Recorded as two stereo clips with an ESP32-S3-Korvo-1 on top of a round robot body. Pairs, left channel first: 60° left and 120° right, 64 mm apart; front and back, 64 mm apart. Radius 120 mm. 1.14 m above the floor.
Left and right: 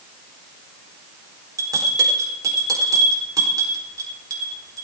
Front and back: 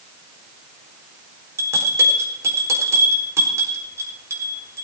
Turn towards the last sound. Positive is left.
turn(degrees=-140)